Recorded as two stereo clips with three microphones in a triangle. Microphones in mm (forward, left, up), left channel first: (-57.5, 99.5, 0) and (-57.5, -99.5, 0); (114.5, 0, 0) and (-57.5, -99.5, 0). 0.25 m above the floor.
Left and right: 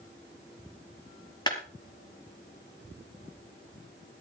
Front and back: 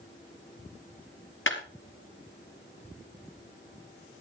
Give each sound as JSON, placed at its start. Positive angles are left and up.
{"t": 1.5, "sound": "a clap", "azimuth_deg": 20, "distance_m": 3.5}